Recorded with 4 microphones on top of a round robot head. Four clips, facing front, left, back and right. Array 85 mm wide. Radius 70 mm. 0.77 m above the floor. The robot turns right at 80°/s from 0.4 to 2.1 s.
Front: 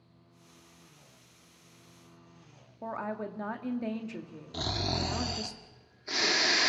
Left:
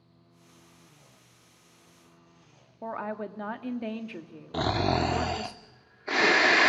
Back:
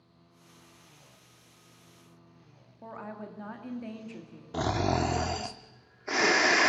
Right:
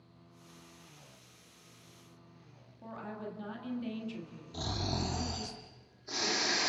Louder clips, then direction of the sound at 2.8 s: Left 9 dB, front 6 dB; 65° left.